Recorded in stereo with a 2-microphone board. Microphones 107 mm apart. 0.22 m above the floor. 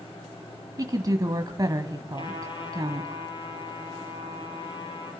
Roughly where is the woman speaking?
Right.